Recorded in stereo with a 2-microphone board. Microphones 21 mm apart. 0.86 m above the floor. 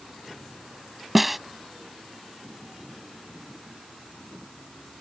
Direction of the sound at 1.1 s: 15° right (ahead or behind).